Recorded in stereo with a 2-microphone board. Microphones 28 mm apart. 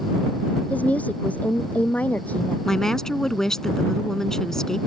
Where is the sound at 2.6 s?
20° left (ahead or behind).